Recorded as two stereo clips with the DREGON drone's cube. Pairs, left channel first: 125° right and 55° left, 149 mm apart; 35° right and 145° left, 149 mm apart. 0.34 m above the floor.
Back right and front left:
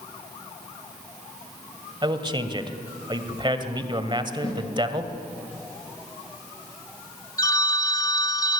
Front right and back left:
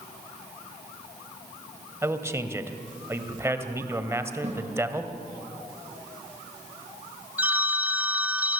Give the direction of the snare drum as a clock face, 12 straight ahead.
6 o'clock.